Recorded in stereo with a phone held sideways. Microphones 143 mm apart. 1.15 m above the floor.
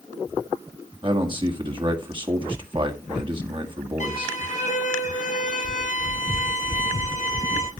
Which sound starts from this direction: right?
A man speaking, at 1.0 s.